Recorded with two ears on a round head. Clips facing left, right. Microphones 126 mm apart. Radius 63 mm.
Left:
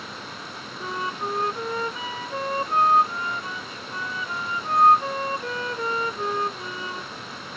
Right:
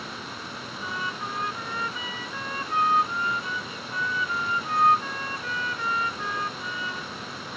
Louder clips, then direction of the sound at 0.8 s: Left 5 dB; 30° left (ahead or behind).